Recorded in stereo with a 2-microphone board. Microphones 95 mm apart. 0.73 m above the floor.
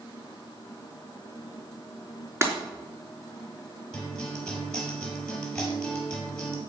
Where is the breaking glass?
25° right (ahead or behind), 4 m.